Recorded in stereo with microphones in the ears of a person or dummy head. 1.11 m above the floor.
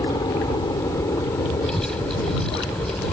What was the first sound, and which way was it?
A helicopter, 25° left (ahead or behind).